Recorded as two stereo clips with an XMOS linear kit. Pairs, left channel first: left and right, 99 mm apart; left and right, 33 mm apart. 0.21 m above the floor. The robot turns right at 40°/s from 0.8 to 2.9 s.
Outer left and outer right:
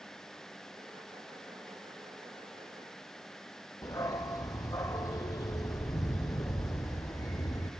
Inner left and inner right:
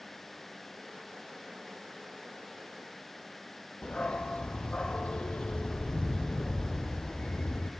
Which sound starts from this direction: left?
A dog barking, at 3.8 s.